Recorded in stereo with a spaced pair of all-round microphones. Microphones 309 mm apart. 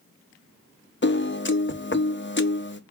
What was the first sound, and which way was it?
A piano, 40° left (ahead or behind).